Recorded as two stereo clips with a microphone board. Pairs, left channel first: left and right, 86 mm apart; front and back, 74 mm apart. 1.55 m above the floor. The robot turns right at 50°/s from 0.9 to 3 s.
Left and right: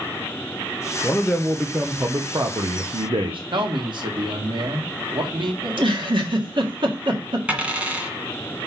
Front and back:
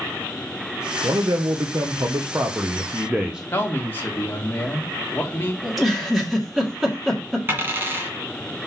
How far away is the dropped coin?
About 1.6 m.